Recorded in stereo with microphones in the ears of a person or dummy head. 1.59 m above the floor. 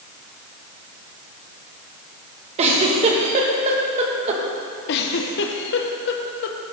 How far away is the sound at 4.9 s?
About 1.3 m.